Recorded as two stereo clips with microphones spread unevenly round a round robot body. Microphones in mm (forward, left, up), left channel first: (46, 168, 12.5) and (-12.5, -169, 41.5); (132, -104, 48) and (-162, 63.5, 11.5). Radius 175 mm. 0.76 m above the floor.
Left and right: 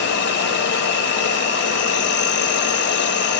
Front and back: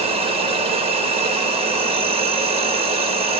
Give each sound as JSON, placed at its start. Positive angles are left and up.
{"t": 0.0, "sound": "an insect", "azimuth_deg": 100, "distance_m": 1.0}